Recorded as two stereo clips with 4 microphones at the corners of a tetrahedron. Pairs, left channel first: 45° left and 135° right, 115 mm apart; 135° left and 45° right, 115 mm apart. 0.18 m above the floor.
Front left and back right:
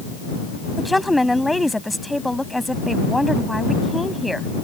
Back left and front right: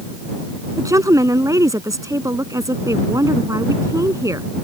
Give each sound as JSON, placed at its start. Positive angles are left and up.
{"t": 0.8, "sound": "a woman speaking", "azimuth_deg": -45}